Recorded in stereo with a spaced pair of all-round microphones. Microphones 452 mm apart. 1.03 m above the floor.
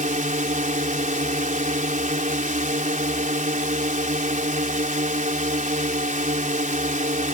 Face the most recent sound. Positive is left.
turn(degrees=-15)  # may be behind; listen again after turning